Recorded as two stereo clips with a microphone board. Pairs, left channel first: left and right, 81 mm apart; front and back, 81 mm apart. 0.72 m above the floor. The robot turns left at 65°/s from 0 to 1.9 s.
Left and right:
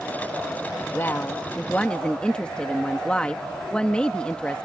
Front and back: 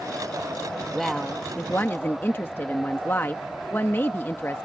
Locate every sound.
0.9 s a woman speaking: 90° left; by 4.7 s 25° left